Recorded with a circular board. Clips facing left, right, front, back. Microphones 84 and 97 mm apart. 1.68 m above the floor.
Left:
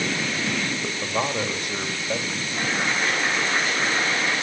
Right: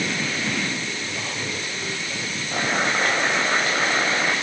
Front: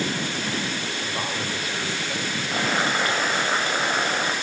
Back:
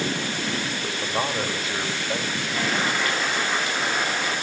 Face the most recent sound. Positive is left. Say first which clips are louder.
# right 3 dB, front 2 dB
turn(degrees=-55)